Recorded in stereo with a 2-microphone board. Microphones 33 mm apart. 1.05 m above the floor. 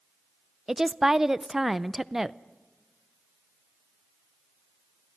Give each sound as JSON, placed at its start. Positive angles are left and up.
{"t": 0.7, "sound": "a woman speaking", "side_deg": -15, "distance_m": 0.5}